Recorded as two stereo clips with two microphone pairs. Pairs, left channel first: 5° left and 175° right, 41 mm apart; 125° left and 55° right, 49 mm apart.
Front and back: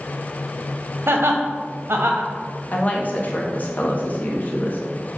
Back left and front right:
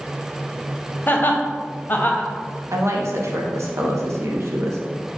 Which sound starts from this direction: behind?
Laughter, at 1.1 s.